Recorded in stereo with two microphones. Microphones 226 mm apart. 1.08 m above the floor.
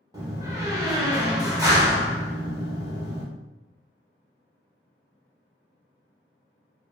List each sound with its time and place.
0.1 s a door slam: 15° right (ahead or behind), 0.8 m